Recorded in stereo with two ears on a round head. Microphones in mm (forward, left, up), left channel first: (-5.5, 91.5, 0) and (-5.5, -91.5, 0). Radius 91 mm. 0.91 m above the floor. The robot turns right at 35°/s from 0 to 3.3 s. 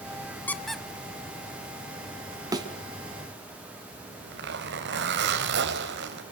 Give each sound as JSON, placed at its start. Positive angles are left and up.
{"t": 0.5, "sound": "a squeak", "side_deg": 10, "distance_m": 1.2}
{"t": 2.5, "sound": "a thud", "side_deg": -20, "distance_m": 3.0}
{"t": 3.9, "sound": "a zipper", "side_deg": -60, "distance_m": 4.0}